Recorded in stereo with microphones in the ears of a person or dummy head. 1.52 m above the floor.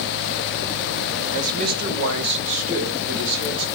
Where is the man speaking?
40° right (ahead or behind), 0.9 m; by 3.6 s 85° right, 2 m.